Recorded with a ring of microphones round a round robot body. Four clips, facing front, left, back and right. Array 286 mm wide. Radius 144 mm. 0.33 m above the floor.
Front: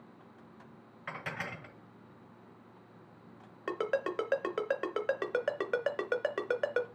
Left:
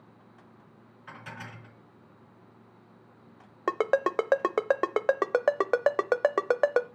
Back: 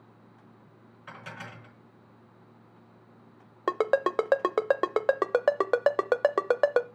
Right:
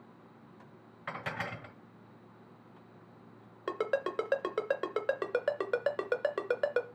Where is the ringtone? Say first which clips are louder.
Left 7 dB, back 8 dB; 140° left, 0.7 m.